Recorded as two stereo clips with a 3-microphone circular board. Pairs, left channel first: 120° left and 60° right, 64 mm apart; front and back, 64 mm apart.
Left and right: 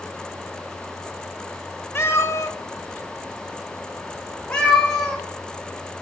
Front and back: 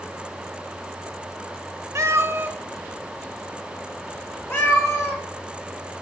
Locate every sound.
1.9 s a cat meowing: 160° left, 0.7 m; by 5.2 s 45° left, 1.4 m